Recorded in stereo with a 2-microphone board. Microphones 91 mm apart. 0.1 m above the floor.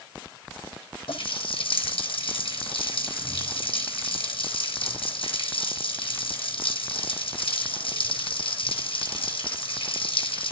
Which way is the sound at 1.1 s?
75° left (ahead or behind).